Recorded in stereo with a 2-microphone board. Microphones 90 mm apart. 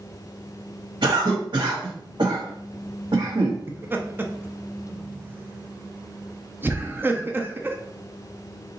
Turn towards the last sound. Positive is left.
turn(degrees=-25)  # may be behind; listen again after turning